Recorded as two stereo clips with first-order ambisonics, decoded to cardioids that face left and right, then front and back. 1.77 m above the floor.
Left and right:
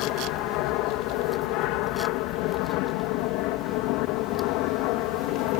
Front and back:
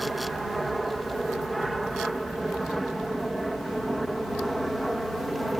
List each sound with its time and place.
0.0 s an aircraft: 100° left; by 5.6 s 95° left